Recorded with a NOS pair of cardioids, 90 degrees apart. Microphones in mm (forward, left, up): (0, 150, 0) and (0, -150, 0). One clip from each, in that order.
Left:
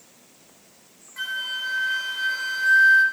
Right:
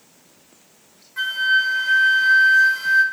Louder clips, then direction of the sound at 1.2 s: Right 10 dB; 10° right.